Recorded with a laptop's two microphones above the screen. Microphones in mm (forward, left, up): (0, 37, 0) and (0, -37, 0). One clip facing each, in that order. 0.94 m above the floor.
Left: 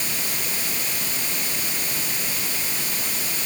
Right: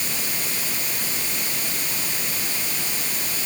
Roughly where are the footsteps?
I don't hear footsteps.